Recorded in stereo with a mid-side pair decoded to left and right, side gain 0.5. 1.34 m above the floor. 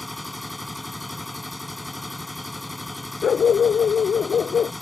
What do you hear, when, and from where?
0.0 s a machine running: straight ahead
3.2 s a dog barking: 40° left